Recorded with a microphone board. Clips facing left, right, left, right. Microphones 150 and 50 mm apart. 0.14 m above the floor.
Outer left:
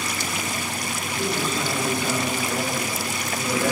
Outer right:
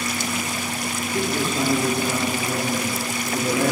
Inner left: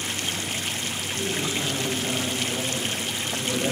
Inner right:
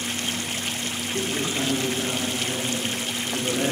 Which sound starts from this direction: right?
A man speaking, at 1.1 s.